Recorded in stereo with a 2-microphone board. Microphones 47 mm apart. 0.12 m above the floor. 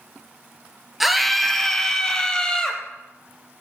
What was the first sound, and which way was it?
A scream, centre (ahead or behind).